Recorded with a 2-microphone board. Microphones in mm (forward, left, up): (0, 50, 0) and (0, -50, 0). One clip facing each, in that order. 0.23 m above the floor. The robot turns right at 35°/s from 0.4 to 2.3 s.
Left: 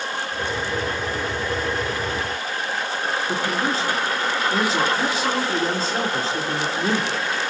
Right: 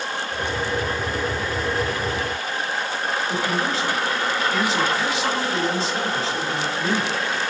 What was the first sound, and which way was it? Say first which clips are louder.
A man speaking: left 1 dB; 50° left (ahead or behind).